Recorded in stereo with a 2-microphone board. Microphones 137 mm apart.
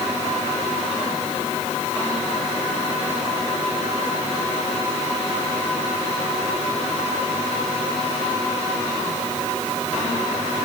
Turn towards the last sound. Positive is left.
No sound to turn to.